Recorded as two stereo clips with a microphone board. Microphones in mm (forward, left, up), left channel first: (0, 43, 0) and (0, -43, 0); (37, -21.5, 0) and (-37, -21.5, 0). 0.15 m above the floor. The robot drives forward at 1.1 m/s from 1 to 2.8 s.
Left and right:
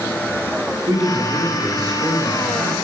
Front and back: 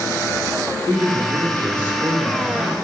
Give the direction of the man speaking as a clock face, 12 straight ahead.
3 o'clock.